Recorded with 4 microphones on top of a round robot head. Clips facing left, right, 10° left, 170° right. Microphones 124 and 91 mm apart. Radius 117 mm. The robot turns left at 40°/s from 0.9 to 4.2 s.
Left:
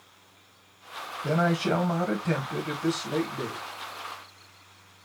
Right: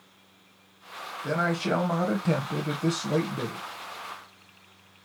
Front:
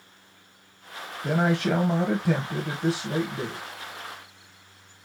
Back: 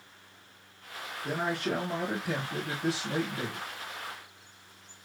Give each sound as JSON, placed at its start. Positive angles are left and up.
{"t": 1.2, "sound": "a man speaking", "azimuth_deg": 20, "distance_m": 1.3}